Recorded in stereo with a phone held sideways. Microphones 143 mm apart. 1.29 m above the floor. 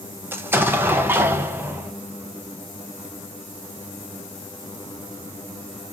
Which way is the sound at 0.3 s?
15° right (ahead or behind).